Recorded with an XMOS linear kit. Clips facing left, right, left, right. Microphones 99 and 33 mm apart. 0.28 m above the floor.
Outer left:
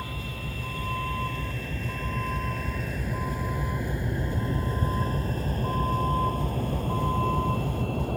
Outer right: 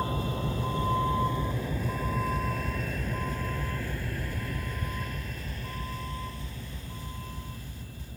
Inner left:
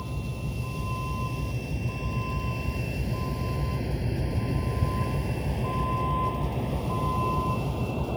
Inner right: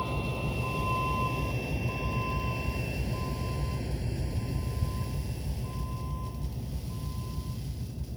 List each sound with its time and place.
0.0 s a vehicle: 30° right (ahead or behind); by 8.2 s 65° left (ahead or behind)